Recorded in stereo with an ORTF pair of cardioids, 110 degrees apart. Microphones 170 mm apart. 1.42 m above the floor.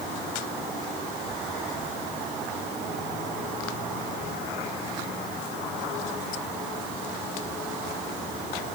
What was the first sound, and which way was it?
Only background noise.